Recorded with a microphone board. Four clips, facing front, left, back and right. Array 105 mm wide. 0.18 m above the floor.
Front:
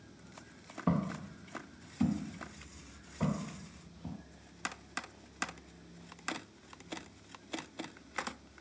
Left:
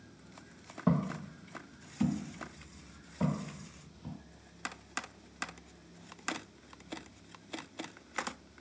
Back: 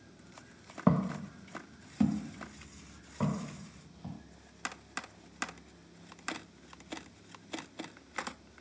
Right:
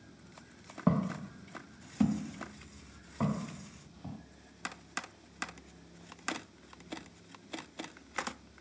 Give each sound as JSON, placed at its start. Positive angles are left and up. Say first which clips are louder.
{"t": 0.9, "sound": "footsteps", "louder": "right 1 dB, back 4 dB", "azimuth_deg": -165, "distance_m": 0.8}